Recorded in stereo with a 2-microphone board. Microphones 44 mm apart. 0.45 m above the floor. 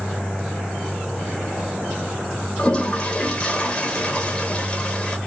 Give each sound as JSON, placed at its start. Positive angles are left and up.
{"t": 2.6, "sound": "a toilet flushing", "side_deg": 25, "distance_m": 0.7}